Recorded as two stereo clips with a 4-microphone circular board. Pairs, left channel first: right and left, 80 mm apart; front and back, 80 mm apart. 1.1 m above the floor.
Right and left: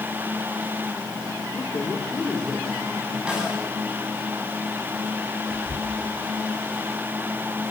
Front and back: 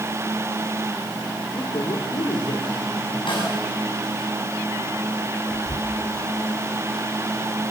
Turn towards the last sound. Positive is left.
turn(degrees=0)